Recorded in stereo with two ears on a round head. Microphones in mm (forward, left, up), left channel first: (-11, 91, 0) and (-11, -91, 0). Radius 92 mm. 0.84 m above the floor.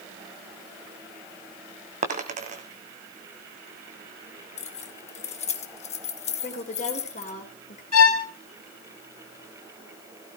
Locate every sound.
2.0 s a dropped coin: 35° right (ahead or behind), 2 m
4.6 s keys jangling: 35° left (ahead or behind), 1.2 m
6.4 s a woman speaking: 40° left (ahead or behind), 3 m
7.9 s a violin: 80° left, 1.9 m